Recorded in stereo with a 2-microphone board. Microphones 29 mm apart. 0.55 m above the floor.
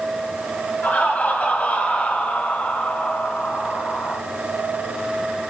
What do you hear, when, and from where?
0.8 s laughter: 60° left (ahead or behind), 4.5 m; by 4.2 s 50° left (ahead or behind), 2.5 m